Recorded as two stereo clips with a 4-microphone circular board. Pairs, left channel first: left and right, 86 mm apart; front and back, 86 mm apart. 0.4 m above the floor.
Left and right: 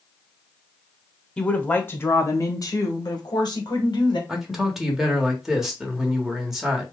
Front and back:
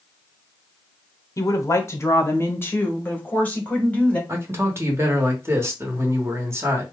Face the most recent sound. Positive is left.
turn(degrees=-170)